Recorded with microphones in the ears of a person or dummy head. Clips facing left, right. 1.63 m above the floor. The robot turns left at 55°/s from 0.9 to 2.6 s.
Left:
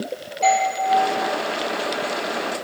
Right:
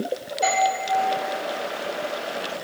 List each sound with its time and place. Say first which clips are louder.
0.4 s a doorbell: left 3 dB; 10° right (ahead or behind), 3.5 m